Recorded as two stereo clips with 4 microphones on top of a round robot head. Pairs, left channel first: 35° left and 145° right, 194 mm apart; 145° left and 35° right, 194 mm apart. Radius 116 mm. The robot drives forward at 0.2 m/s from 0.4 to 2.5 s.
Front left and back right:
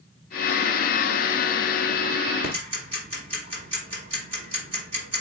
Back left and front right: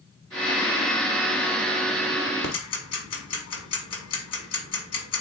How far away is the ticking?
About 1.0 m.